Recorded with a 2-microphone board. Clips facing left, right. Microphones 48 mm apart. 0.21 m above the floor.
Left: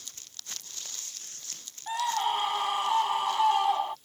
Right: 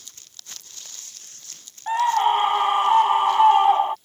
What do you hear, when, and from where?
1.9 s a scream: 40° right (ahead or behind)